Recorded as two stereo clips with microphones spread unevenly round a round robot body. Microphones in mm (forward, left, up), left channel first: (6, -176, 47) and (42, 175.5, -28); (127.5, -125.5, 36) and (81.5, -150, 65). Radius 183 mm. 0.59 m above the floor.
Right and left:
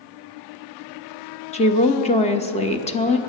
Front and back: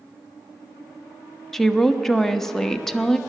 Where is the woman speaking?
15° right, 1.1 m.